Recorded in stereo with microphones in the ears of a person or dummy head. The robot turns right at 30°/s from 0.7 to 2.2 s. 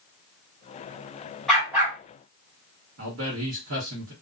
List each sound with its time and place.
1.5 s a dog barking: centre (ahead or behind), 1.0 m; by 2.0 s 10° right (ahead or behind), 1.0 m
3.0 s a man speaking: 75° right (ahead or behind), 1.1 m